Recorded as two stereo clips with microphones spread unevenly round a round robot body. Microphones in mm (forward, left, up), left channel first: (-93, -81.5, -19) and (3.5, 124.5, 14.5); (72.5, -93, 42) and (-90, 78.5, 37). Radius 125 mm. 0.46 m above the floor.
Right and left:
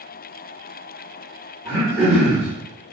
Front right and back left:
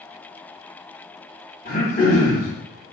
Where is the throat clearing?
5° right, 1.3 m.